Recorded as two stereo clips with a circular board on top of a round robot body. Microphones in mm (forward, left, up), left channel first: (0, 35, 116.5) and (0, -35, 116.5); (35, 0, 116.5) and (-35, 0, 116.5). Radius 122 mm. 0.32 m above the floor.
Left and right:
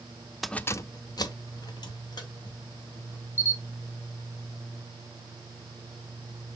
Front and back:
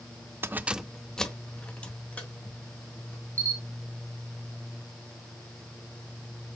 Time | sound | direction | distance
0.4 | keys jangling | straight behind | 0.6 m
3.4 | a camera shutter | 135° left | 2 m